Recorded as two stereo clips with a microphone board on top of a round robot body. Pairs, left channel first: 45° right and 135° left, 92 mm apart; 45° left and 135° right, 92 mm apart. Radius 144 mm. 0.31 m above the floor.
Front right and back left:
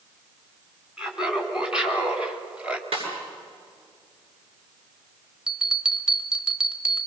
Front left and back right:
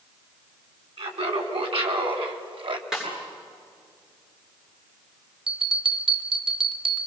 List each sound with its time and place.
1.0 s laughter: 145° right, 4.5 m; by 2.8 s 150° right, 2.5 m
2.9 s a snare drum: 140° left, 8.5 m
5.5 s a bell: 145° right, 1.6 m